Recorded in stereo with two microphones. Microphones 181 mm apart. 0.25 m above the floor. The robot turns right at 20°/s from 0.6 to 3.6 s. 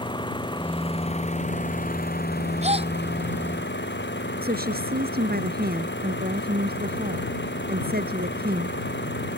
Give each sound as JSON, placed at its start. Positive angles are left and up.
{"t": 0.0, "sound": "an engine running", "azimuth_deg": 25}
{"t": 2.6, "sound": "a gasp", "side_deg": -40}
{"t": 4.4, "sound": "a woman speaking", "side_deg": -60}